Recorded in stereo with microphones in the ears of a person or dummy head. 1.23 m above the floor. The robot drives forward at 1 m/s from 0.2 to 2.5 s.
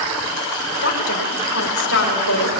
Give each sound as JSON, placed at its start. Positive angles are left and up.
{"t": 0.8, "sound": "a woman speaking", "side_deg": 65, "distance_m": 5.5}